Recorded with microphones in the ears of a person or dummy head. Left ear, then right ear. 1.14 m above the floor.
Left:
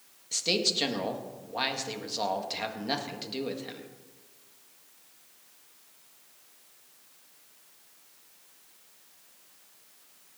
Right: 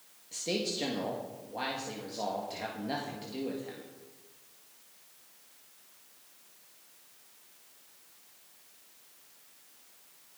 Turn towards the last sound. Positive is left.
turn(degrees=40)  # may be behind; listen again after turning